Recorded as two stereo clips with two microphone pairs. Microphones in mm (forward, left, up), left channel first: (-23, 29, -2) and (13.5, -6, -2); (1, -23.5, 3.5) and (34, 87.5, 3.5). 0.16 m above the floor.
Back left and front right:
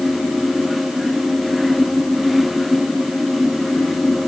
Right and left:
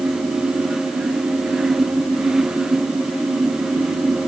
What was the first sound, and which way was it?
Only background noise.